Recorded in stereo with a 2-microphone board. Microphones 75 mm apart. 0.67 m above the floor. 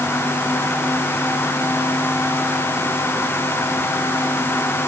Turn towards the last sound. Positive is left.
No sound to turn to.